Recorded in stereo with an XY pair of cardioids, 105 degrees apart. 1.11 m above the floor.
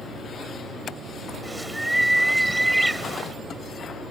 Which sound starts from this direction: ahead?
A bird, at 1.4 s.